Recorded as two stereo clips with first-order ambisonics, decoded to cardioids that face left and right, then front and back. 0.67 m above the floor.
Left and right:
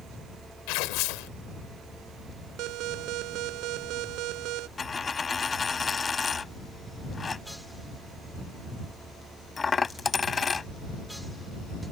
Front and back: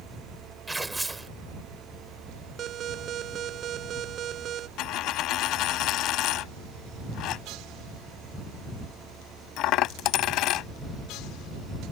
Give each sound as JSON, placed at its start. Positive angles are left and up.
{"t": 0.7, "sound": "tearing paper", "azimuth_deg": 100}
{"t": 2.6, "sound": "an alarm", "azimuth_deg": -125}
{"t": 4.8, "sound": "a dropped coin", "azimuth_deg": 20}